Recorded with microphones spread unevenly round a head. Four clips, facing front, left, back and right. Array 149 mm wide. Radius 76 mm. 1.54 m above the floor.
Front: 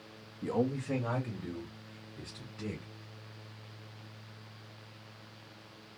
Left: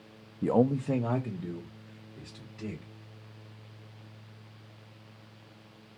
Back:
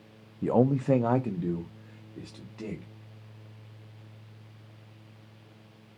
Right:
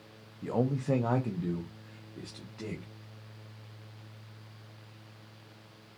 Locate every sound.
0.4 s a man speaking: 130° left, 0.5 m; by 2.9 s 155° right, 3.5 m